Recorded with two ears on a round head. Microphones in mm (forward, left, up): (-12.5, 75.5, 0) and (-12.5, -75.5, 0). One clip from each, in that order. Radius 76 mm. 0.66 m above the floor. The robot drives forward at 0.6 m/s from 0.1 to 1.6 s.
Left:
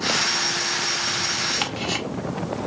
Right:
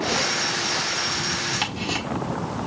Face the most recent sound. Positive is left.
turn(degrees=40)  # may be behind; listen again after turning